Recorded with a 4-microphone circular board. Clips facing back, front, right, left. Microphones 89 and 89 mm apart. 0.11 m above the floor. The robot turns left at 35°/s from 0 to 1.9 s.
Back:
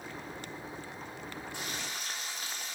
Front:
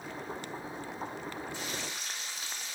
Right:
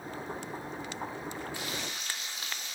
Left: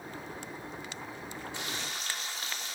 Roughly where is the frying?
Behind.